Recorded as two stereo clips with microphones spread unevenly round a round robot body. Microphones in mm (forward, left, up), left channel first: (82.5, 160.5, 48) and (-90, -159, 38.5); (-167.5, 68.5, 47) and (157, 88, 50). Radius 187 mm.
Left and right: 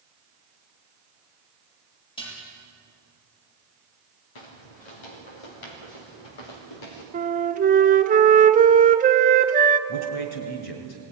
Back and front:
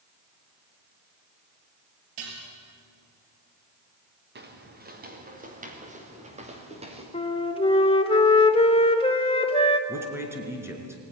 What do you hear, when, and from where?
2.2 s dishes clattering: 15° right, 6 m
4.3 s footsteps: 60° left, 4.5 m; by 7.0 s 75° left, 6 m
7.1 s a flute: 135° right, 1.2 m
9.9 s a man speaking: 85° left, 4.5 m